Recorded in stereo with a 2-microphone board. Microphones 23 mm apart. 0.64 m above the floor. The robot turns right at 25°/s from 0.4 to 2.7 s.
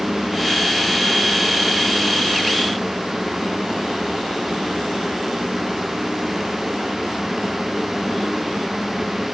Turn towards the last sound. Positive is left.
No sound to turn to.